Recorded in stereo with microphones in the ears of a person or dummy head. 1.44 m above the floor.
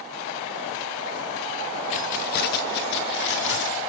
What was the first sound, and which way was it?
Keys jangling, 35° left (ahead or behind).